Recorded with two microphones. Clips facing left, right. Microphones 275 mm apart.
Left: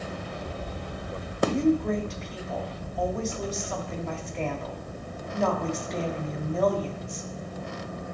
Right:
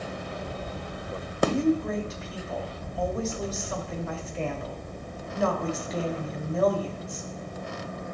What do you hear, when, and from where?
1.5 s a woman speaking: 5° right (ahead or behind), 2 m